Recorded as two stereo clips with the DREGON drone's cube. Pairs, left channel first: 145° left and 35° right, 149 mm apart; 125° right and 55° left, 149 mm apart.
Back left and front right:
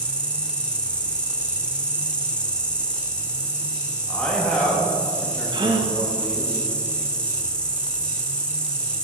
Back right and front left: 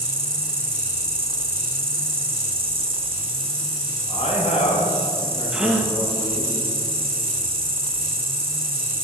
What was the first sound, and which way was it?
An insect, 65° left.